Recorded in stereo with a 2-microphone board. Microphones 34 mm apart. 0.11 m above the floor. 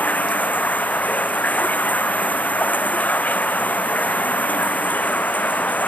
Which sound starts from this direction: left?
Running water, at 0.0 s.